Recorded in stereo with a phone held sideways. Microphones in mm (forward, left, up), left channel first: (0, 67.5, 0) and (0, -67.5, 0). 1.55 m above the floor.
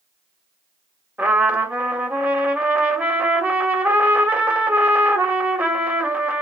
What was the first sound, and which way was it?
A trumpet, 15° right (ahead or behind).